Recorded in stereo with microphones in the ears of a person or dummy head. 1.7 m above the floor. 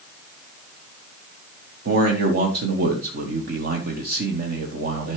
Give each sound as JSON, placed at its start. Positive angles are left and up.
{"t": 1.9, "sound": "a man speaking", "side_deg": -60, "distance_m": 1.1}